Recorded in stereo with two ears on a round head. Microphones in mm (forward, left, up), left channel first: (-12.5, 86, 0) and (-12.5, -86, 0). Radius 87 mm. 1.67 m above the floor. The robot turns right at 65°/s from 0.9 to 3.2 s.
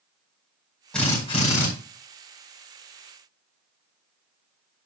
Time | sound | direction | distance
0.9 | a drill | 5° left | 5.5 m